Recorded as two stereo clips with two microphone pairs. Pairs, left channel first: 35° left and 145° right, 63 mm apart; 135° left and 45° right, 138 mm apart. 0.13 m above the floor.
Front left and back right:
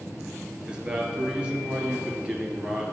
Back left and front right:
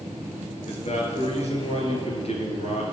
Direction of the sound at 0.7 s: 140° left.